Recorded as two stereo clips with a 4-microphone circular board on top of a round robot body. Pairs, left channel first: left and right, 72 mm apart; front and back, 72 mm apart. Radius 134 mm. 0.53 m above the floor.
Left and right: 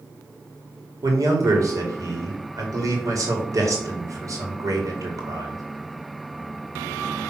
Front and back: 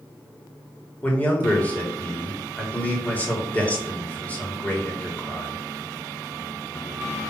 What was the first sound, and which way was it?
A man speaking, 65° right.